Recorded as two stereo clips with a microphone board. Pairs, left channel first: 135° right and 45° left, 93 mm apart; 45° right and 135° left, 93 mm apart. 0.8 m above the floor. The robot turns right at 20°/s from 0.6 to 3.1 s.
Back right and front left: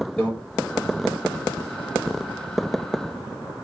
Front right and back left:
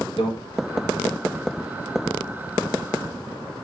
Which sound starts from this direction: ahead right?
A microwave, at 0.2 s.